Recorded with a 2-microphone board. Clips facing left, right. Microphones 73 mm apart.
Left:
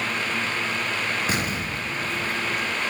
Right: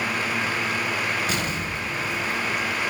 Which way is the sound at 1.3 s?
40° left (ahead or behind).